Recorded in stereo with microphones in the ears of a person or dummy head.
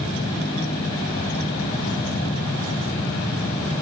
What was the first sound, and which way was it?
Only background noise.